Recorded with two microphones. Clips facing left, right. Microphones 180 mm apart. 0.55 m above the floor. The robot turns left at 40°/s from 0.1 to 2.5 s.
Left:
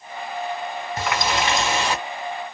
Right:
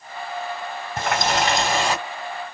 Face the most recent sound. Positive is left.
turn(degrees=-160)